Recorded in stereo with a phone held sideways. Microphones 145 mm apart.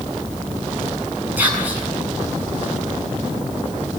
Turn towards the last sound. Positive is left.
turn(degrees=-10)  # may be behind; listen again after turning